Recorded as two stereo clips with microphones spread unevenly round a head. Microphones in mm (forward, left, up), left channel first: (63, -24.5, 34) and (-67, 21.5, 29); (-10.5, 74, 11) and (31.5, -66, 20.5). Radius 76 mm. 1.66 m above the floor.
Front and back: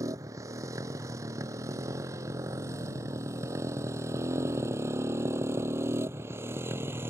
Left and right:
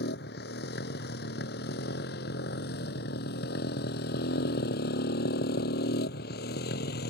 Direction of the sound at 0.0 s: 90° left.